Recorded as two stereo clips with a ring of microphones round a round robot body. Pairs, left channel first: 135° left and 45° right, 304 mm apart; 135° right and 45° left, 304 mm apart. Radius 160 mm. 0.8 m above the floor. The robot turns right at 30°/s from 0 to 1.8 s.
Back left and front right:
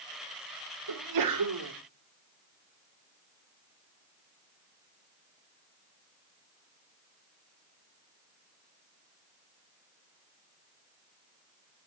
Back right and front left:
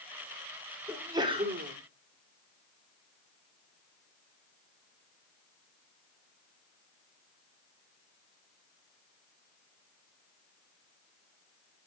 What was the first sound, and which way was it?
A sneeze, 40° right.